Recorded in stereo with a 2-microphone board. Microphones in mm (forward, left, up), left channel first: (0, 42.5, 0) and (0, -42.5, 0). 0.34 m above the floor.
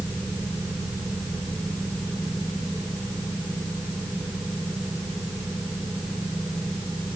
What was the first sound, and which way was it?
Only background noise.